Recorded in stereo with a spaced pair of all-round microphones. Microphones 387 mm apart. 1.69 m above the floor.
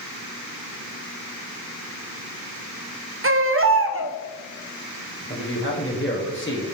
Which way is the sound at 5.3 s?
30° left (ahead or behind).